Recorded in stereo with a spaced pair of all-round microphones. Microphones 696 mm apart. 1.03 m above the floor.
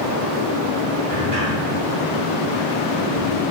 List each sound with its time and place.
1.1 s a sliding door: 55° right (ahead or behind), 2.5 m